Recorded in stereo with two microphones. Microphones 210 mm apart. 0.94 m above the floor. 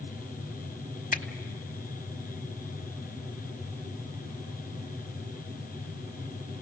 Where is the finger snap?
40° left (ahead or behind), 1.4 m.